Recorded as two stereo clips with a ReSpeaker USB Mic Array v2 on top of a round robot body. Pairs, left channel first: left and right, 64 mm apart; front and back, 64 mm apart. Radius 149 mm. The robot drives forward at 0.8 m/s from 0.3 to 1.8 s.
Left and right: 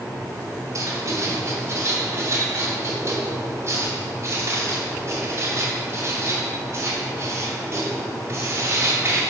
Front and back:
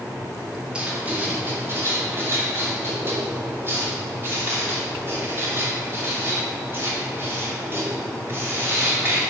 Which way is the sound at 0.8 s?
105° right.